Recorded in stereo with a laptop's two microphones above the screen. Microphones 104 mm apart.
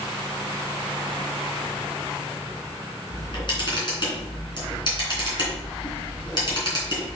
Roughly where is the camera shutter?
Left.